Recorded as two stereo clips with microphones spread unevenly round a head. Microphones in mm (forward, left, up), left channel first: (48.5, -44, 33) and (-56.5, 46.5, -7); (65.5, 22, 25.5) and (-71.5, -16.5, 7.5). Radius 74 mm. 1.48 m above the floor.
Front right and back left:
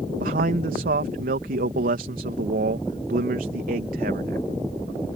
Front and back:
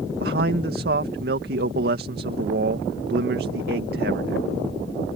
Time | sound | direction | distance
0.2 | a man speaking | 175° left | ?